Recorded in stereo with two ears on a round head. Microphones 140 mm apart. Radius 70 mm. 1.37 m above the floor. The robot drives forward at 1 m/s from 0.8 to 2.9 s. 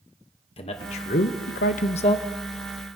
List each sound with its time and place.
0.6 s a man speaking: 35° left (ahead or behind), 1.0 m